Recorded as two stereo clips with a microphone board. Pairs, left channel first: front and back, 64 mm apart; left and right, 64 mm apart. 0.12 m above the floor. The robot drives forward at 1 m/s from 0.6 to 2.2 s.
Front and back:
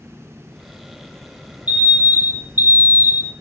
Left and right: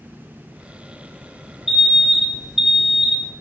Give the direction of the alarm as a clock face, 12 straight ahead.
5 o'clock.